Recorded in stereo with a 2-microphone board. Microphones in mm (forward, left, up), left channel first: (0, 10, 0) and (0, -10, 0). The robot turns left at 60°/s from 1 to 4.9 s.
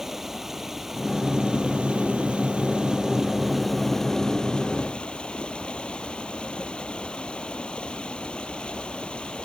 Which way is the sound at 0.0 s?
20° right.